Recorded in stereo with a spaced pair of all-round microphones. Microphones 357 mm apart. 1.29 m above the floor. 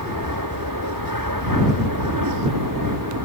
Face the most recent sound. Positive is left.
turn(degrees=-65)  # may be behind; listen again after turning